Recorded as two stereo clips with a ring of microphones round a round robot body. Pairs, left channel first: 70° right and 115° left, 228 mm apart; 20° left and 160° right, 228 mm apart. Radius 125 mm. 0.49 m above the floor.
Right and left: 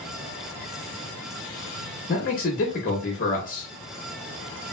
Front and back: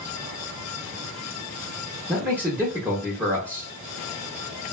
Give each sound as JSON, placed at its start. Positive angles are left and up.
{"t": 2.1, "sound": "a man speaking", "azimuth_deg": -80, "distance_m": 0.8}